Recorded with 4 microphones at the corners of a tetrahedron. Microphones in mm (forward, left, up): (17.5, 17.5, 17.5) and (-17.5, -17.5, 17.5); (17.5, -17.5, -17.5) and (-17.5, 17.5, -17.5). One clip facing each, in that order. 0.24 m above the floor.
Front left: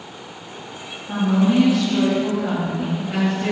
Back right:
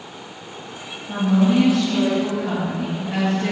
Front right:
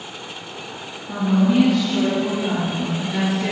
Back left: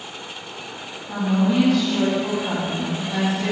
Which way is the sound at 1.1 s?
15° left.